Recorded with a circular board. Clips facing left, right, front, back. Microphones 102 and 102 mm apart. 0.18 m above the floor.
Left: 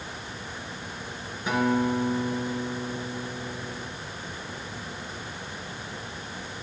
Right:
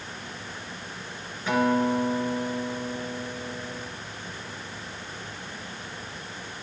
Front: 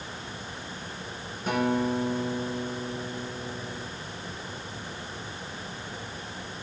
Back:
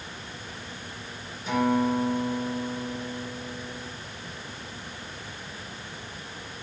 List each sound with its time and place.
1.5 s a guitar: 20° left, 3 m